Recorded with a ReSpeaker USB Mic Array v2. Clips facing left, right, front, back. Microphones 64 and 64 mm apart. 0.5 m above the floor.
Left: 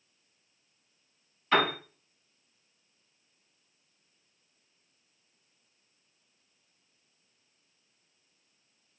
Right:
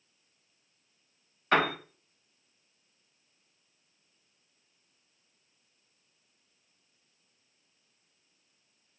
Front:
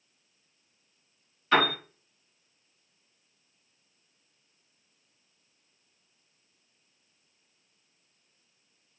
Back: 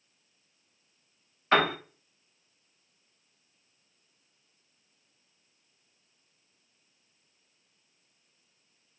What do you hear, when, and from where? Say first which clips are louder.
1.5 s a piano: even, even; 130° right, 1.6 m